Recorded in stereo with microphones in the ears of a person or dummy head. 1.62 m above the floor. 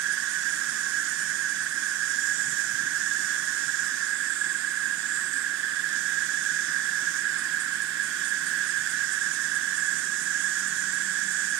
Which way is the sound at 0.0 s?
60° right (ahead or behind).